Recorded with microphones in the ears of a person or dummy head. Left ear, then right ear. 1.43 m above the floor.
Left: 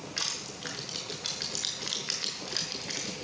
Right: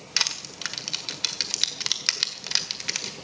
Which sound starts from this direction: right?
Crushing, at 0.2 s.